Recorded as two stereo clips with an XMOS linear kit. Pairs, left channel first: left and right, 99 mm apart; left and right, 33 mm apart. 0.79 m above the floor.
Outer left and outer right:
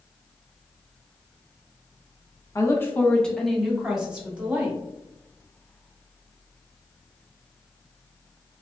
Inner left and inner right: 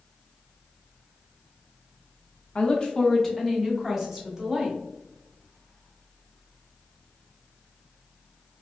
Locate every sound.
2.5 s a woman speaking: 35° left (ahead or behind), 0.9 m; by 4.8 s 15° right (ahead or behind), 1.9 m